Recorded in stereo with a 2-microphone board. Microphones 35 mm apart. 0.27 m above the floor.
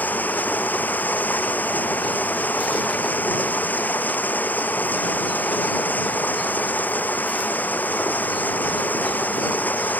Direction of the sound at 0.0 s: 55° left (ahead or behind).